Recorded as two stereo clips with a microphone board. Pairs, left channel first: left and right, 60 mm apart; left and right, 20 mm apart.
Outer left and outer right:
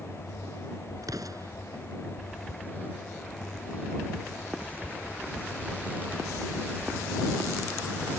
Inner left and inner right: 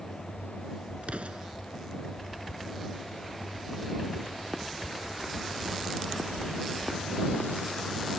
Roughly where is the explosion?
Right.